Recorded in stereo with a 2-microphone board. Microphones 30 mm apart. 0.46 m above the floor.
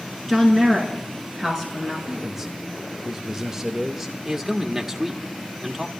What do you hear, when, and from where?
0.3 s a woman speaking: 5° left (ahead or behind), 6 m; by 2.0 s 10° left (ahead or behind), 5.5 m
2.1 s a man speaking: 15° right (ahead or behind), 1.1 m
4.2 s a man speaking: 15° right (ahead or behind), 1.3 m